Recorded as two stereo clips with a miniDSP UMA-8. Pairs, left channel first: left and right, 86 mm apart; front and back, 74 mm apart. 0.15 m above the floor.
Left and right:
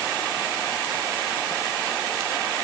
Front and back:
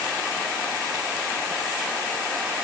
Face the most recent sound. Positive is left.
No sound to turn to.